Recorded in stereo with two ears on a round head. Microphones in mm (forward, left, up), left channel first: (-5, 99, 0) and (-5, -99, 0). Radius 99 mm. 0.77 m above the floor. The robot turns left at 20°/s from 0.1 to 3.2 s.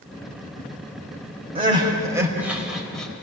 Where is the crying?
25° right (ahead or behind), 4 m; by 3.2 s 5° left (ahead or behind), 4 m.